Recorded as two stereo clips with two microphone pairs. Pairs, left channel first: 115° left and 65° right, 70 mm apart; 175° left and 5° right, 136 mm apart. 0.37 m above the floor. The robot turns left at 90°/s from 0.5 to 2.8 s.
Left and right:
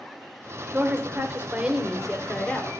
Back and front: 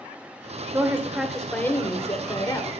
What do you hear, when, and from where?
0.7 s a woman speaking: 45° right, 0.9 m; by 2.8 s 130° left, 0.9 m